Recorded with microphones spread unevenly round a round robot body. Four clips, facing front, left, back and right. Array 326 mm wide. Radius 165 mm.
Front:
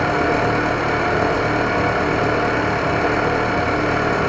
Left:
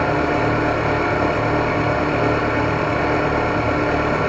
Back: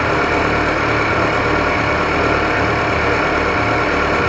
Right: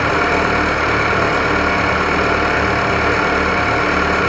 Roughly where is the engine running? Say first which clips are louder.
Right 2 dB, back 2 dB; right.